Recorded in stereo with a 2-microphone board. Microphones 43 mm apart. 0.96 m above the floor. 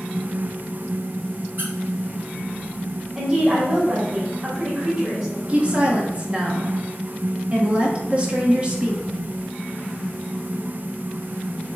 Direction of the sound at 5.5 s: 25° right (ahead or behind).